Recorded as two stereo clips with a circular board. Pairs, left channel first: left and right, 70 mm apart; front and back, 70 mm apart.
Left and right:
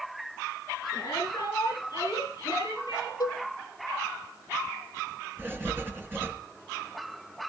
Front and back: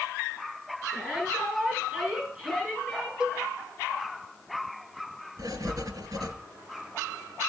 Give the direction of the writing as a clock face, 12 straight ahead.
5 o'clock.